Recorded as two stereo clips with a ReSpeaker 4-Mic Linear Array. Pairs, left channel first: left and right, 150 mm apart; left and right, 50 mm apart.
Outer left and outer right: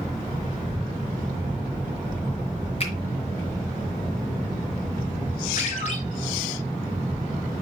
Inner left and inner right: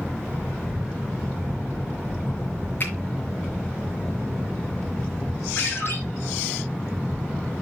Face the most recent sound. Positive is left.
turn(degrees=50)  # may be behind; listen again after turning